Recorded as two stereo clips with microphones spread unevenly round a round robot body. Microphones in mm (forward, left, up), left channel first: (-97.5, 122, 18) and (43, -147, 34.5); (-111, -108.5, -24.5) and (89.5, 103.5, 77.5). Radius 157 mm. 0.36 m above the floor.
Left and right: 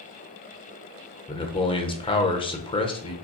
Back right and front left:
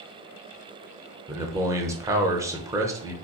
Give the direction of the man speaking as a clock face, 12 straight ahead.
7 o'clock.